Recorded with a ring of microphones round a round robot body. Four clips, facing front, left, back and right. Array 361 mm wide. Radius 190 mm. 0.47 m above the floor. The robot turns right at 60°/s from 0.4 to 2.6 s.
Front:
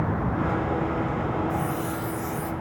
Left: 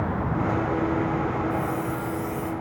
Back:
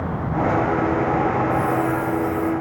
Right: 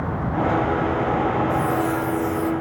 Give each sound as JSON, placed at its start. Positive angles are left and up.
{"t": 1.5, "sound": "a hiss", "azimuth_deg": -70, "distance_m": 1.8}